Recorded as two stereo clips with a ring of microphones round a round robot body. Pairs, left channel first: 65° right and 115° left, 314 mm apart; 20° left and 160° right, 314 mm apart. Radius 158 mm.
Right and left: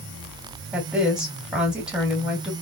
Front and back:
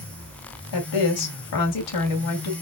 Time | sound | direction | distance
0.7 | a woman speaking | 25° left | 2.5 m